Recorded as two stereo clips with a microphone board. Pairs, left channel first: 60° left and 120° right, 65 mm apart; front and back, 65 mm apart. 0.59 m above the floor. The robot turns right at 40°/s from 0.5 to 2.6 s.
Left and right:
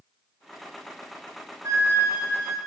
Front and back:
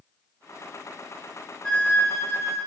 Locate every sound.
1.6 s a flute: 80° right, 2.5 m; by 2.6 s 40° right, 2.5 m